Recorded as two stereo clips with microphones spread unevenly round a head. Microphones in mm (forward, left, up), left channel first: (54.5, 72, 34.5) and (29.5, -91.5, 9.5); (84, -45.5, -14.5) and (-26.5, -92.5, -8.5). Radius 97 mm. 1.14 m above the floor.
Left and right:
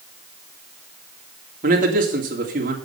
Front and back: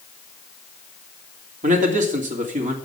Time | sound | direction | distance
1.6 | a man speaking | 145° right | 3 m